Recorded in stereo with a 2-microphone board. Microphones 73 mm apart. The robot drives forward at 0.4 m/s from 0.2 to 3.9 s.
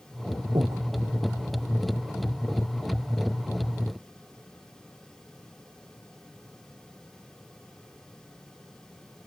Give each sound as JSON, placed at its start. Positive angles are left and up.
{"t": 0.6, "sound": "breathing", "side_deg": -70}